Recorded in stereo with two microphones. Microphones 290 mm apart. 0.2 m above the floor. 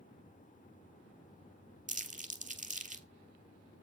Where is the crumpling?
25° right (ahead or behind), 1.1 m.